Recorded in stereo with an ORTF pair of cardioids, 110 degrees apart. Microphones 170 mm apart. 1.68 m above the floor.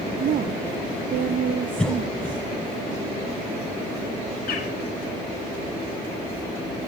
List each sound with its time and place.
0.2 s a woman speaking: 55° right, 1.0 m
1.8 s a cough: 5° left, 1.1 m
4.5 s a bird: 65° left, 4 m